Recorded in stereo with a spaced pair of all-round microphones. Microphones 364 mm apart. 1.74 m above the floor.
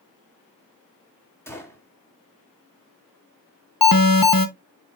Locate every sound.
1.5 s a gunshot: 5° left (ahead or behind), 2.5 m
3.8 s an alarm: 65° left (ahead or behind), 1.1 m